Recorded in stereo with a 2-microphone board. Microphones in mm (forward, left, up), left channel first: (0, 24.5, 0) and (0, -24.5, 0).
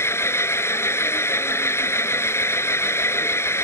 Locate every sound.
0.0 s an engine running: 60° left (ahead or behind)